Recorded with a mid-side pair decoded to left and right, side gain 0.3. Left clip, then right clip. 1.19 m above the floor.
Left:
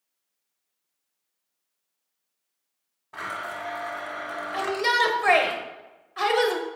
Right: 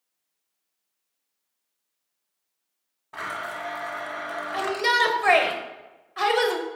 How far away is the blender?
About 1.0 m.